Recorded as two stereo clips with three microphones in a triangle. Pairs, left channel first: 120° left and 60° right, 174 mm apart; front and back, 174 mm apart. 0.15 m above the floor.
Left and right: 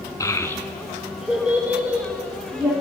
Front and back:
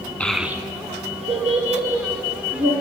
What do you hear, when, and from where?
0.2 s a child speaking: 75° left, 0.6 m; by 2.7 s 135° right, 2 m